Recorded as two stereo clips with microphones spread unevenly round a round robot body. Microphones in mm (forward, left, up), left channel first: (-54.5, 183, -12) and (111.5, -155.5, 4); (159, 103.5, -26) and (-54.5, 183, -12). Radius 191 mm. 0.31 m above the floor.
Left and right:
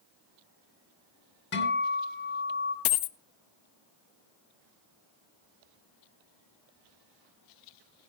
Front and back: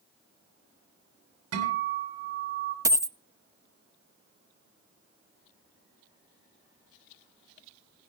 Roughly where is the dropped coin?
Left.